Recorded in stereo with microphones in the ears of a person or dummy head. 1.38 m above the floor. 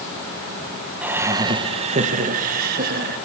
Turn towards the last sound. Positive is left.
turn(degrees=-50)  # may be behind; listen again after turning